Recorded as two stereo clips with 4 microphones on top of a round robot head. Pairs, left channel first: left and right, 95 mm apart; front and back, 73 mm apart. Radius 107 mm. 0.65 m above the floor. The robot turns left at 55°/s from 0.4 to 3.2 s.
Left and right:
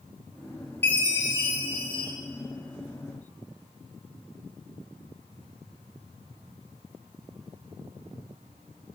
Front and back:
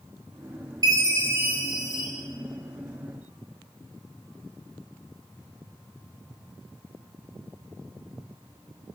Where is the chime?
155° left, 2 m; by 2.1 s 85° left, 2 m.